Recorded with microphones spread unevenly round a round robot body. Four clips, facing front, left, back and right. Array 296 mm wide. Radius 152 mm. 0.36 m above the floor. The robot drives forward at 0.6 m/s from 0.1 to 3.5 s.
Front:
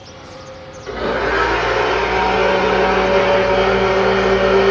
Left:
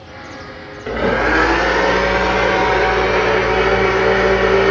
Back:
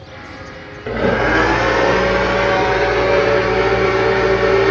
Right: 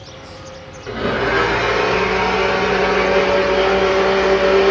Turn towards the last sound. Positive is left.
turn(degrees=170)